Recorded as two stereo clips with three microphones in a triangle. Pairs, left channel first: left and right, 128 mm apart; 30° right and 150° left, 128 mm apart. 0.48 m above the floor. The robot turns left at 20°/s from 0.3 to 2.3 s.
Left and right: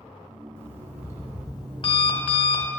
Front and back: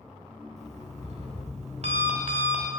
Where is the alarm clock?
160° left, 0.8 m; by 2.7 s 125° left, 0.8 m.